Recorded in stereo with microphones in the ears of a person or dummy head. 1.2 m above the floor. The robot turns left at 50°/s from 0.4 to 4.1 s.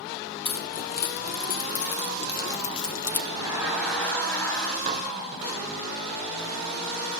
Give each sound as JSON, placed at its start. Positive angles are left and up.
{"t": 0.5, "sound": "keys jangling", "side_deg": 30, "distance_m": 1.0}
{"t": 3.3, "sound": "laughter", "azimuth_deg": -155, "distance_m": 6.0}
{"t": 4.9, "sound": "dishes clattering", "side_deg": -40, "distance_m": 0.8}